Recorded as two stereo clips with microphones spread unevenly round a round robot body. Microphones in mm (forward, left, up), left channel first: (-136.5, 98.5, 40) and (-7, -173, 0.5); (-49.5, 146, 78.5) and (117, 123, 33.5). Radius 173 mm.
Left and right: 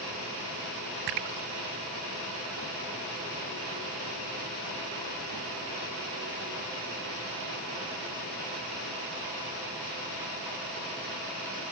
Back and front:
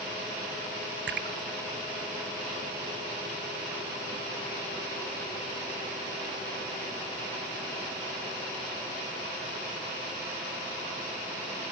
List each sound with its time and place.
1.1 s a splash: 40° right